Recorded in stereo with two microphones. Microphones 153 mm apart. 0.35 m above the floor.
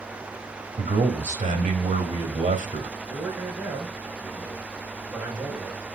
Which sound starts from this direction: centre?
A man speaking, at 3.1 s.